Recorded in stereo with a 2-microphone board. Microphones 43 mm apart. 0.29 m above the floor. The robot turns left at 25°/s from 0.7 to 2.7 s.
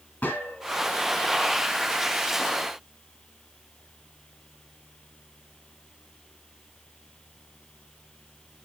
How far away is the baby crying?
No baby crying in this recording.